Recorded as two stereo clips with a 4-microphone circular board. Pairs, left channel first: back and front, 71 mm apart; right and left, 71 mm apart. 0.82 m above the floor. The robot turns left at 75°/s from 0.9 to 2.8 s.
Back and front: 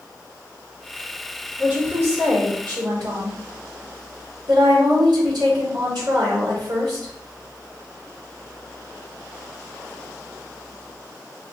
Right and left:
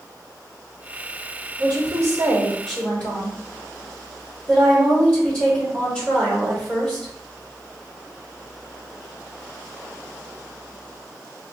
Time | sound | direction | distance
1.6 | a woman speaking | 75° left | 2.5 m